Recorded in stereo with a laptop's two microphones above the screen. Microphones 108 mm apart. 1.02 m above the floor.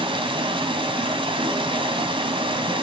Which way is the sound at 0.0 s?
55° right (ahead or behind).